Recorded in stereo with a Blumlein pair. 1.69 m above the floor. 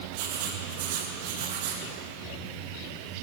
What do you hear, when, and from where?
0.1 s writing: 50° right, 2 m